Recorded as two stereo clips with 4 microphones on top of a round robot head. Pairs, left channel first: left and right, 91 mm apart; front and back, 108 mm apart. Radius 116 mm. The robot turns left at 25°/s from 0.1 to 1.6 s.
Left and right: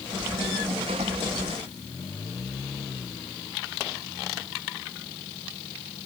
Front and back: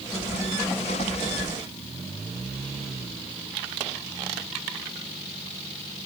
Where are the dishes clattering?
No dishes clattering in this recording.